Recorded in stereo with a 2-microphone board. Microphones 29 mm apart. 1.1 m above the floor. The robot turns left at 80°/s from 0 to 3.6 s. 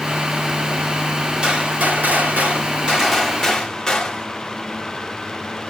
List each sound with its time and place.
1.4 s a gunshot: 30° right, 2.5 m; by 4.3 s 155° left, 2.5 m